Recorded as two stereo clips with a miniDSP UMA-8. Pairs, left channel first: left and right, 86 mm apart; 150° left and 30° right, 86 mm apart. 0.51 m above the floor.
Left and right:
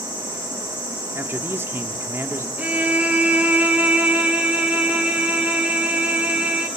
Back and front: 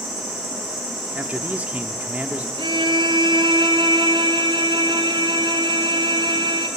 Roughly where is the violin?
Ahead.